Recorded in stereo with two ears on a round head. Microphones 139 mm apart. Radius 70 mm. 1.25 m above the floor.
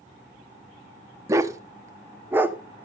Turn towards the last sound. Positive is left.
turn(degrees=-10)  # may be behind; listen again after turning